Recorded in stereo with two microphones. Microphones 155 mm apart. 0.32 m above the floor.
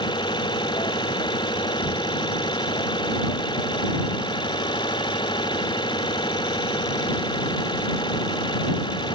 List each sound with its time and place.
0.0 s an engine running: 30° left (ahead or behind)